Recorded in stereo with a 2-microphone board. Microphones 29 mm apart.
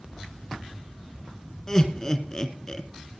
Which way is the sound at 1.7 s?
20° left (ahead or behind).